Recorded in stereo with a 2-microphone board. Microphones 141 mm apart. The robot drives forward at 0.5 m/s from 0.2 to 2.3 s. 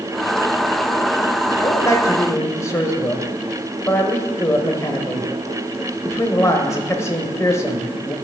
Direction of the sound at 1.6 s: 25° left (ahead or behind).